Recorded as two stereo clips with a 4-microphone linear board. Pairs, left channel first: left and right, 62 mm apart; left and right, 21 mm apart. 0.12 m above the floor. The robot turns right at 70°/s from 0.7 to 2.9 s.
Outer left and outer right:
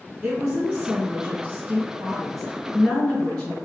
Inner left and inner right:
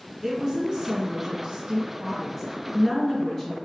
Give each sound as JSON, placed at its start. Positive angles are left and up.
{"t": 0.2, "sound": "a woman speaking", "side_deg": -20, "distance_m": 1.1}